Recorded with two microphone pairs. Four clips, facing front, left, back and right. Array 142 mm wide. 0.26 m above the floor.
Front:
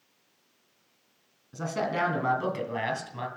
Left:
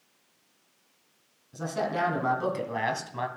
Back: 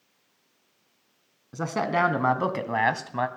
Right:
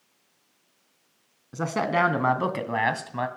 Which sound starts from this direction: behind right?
A man speaking, at 1.5 s.